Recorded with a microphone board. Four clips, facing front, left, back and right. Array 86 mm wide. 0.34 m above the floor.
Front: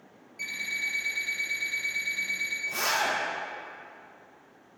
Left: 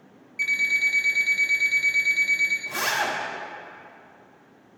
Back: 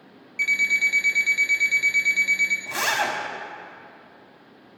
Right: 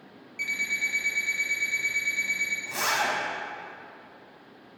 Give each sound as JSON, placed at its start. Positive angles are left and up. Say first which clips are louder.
{"t": 0.4, "sound": "an alarm clock", "louder": "left 6 dB, back 11 dB", "azimuth_deg": 175, "distance_m": 1.4}
{"t": 2.7, "sound": "a zipper", "louder": "right 1 dB, back 2 dB", "azimuth_deg": 175, "distance_m": 1.0}